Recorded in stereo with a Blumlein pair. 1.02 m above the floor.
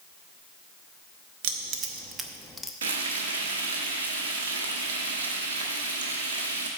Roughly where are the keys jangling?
Ahead right.